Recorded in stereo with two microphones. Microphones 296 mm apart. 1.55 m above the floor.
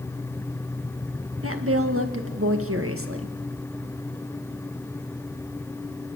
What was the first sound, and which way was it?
A woman speaking, 45° right (ahead or behind).